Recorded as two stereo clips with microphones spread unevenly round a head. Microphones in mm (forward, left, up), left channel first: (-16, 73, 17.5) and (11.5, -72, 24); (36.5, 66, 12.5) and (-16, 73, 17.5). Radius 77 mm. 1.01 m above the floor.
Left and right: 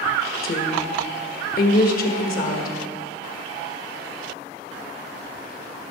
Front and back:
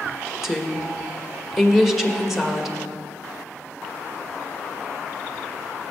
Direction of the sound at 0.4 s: 85° left.